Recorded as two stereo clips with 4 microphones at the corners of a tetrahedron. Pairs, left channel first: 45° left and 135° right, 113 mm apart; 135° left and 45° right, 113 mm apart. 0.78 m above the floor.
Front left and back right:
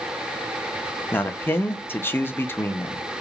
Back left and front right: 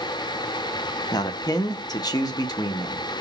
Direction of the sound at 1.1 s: 110° left.